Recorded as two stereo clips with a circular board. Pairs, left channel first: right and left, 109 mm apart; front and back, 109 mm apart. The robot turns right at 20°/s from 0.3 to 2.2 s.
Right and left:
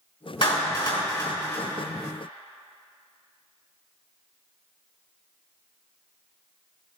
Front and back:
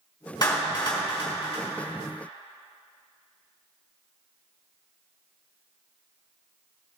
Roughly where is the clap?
Ahead right.